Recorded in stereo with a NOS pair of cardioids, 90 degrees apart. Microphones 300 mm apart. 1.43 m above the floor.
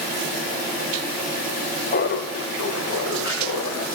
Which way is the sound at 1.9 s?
35° left.